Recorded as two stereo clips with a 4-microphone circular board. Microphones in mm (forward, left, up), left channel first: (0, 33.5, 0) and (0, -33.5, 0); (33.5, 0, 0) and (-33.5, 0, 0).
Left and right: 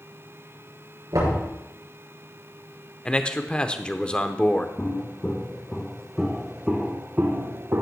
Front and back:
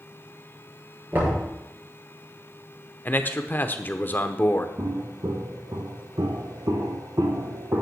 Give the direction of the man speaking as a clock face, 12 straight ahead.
11 o'clock.